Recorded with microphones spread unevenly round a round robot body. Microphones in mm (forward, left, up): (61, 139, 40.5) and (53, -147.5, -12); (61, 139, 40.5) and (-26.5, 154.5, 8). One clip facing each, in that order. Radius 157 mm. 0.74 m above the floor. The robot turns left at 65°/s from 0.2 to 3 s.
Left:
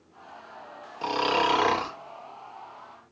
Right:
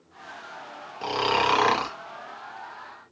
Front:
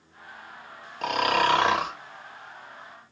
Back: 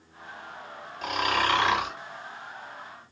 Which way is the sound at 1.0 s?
10° right.